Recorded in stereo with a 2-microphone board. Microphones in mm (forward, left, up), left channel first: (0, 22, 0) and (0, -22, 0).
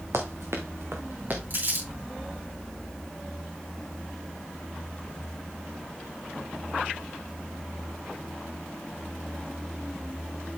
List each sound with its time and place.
0.1 s running footsteps: 80° right, 2 m; by 1.4 s 40° right (ahead or behind), 2.5 m
1.5 s crumpling: 45° right (ahead or behind), 5.5 m